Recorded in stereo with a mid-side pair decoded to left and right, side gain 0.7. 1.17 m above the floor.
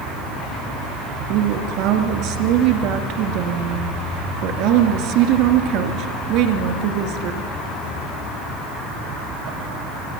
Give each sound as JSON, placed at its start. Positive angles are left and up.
{"t": 1.3, "sound": "a woman speaking", "azimuth_deg": -70, "distance_m": 2.5}